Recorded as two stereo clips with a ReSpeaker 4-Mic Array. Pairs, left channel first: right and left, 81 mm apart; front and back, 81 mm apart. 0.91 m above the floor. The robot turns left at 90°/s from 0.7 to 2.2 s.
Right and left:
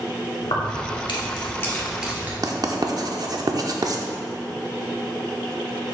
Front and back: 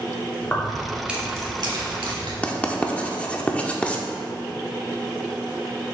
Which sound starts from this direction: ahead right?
Keys jangling, at 0.4 s.